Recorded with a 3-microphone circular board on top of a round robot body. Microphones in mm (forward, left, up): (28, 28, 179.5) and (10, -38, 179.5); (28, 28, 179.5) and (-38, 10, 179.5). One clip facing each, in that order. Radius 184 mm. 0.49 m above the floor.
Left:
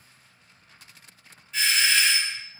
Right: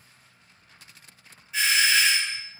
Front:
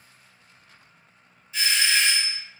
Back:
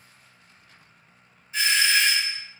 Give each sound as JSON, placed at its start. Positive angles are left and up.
{"t": 1.5, "sound": "a doorbell", "azimuth_deg": 175, "distance_m": 2.0}